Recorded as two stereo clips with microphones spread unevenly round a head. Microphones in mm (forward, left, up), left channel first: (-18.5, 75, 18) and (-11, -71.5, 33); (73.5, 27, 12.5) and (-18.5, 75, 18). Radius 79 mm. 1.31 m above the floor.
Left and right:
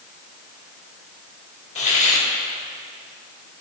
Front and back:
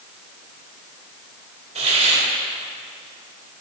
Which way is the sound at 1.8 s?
135° left.